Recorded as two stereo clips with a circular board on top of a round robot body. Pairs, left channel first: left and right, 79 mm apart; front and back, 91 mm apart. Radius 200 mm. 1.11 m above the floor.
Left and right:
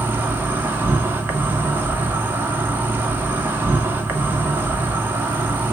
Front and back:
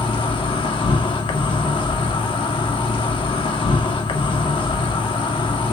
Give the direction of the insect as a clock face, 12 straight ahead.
1 o'clock.